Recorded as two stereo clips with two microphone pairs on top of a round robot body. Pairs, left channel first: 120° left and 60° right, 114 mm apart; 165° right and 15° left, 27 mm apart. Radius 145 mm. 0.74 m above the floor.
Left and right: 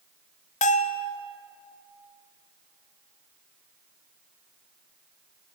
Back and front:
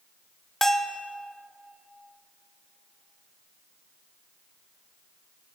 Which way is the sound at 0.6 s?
120° left.